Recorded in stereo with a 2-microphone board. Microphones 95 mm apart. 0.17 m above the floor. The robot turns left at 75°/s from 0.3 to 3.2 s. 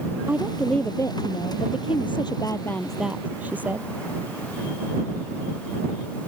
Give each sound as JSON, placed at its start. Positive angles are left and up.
{"t": 0.3, "sound": "a woman speaking", "azimuth_deg": -160}